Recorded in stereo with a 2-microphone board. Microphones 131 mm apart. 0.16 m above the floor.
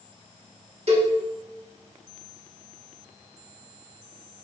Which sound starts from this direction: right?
A cowbell, at 0.9 s.